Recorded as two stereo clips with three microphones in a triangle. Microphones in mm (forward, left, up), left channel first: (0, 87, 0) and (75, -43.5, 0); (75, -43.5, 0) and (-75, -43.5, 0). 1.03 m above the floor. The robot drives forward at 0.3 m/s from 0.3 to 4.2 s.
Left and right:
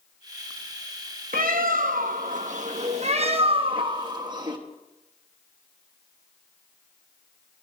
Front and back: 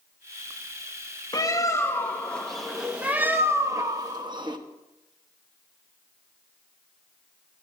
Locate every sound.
1.3 s a bird: 65° right, 0.9 m; by 4.6 s 120° right, 1.0 m